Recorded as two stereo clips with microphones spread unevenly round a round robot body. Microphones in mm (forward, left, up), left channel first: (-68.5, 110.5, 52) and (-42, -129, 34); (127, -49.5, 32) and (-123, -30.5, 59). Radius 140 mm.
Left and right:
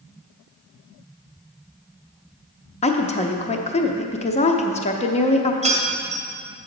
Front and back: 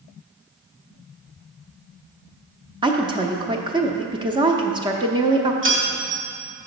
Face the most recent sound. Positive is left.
turn(degrees=-145)